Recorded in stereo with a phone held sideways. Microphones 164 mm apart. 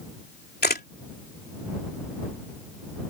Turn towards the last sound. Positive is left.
turn(degrees=80)